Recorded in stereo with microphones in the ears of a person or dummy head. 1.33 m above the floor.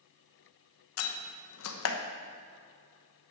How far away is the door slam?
About 1.0 m.